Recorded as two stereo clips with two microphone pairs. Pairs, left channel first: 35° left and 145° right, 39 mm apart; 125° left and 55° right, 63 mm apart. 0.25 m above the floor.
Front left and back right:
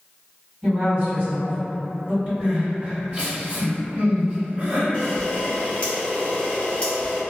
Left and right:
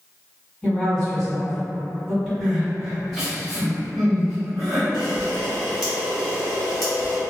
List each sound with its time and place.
0.6 s a woman speaking: 160° right, 1.9 m
2.4 s crying: 145° right, 1.8 m
4.9 s a camera shutter: 45° left, 1.3 m